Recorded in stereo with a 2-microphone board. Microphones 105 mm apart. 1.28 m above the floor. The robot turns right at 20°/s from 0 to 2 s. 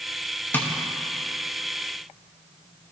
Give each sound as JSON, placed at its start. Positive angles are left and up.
{"t": 0.5, "sound": "tapping", "side_deg": 20, "distance_m": 0.8}